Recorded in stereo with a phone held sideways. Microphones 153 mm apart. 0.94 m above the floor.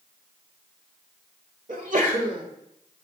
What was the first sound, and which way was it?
A sneeze, 55° right (ahead or behind).